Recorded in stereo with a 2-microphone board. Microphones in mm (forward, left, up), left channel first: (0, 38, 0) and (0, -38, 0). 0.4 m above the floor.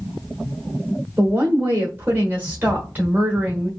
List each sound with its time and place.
1.2 s a woman speaking: 25° right (ahead or behind), 1.0 m